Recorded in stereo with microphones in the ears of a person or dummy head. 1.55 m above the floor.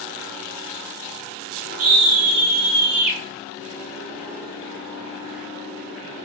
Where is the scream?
75° right (ahead or behind), 2 m; by 3.2 s 90° right, 2.5 m.